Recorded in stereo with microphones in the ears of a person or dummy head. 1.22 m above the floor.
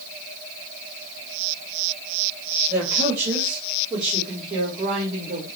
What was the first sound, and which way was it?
A man speaking, 20° right (ahead or behind).